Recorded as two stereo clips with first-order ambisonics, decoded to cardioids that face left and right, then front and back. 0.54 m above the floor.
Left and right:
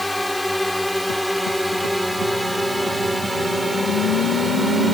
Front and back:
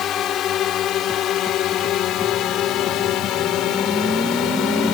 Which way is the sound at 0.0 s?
5° left.